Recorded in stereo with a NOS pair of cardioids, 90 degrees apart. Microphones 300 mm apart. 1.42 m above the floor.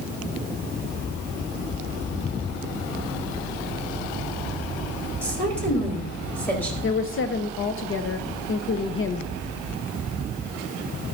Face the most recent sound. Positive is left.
turn(degrees=45)